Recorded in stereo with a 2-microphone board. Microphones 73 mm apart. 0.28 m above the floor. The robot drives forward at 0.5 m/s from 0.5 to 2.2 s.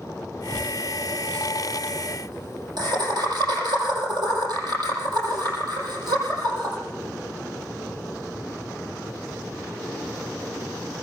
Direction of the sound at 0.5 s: 75° right (ahead or behind).